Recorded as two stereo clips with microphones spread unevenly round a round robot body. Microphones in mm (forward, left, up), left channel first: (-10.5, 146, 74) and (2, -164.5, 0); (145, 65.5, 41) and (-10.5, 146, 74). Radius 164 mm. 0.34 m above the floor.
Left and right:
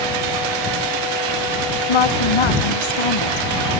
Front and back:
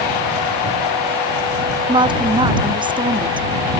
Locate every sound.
1.9 s a woman speaking: 90° left